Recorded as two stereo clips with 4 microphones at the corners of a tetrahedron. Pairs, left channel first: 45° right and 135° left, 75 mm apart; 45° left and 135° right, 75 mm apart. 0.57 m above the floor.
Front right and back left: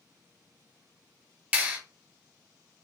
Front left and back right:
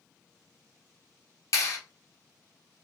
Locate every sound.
1.5 s a clap: 65° left, 1.3 m